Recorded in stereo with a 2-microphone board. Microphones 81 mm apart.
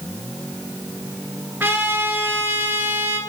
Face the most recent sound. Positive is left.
turn(degrees=-20)  # may be behind; listen again after turning